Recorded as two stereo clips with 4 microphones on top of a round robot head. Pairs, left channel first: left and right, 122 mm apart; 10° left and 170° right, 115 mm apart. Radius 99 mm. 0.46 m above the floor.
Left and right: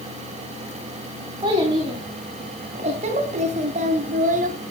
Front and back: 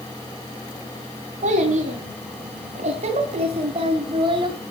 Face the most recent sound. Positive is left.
turn(degrees=-110)